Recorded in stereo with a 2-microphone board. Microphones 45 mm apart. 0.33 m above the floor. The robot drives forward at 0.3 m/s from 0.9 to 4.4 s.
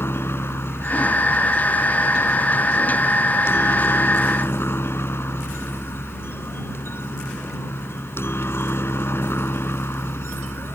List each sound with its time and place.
0.0 s a helicopter: 65° left (ahead or behind)